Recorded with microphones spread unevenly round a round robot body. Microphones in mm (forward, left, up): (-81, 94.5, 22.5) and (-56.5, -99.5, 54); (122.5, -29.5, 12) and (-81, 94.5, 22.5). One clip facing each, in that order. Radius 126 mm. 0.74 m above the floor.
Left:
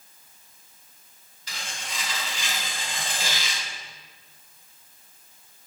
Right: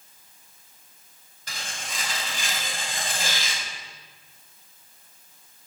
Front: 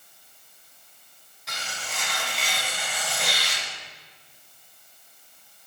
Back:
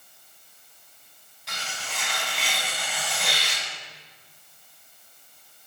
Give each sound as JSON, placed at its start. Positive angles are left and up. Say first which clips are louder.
{"t": 1.5, "sound": "tearing paper", "louder": "even, even", "azimuth_deg": -120, "distance_m": 4.5}